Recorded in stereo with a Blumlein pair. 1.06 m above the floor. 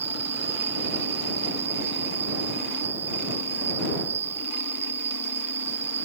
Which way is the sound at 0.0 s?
65° right.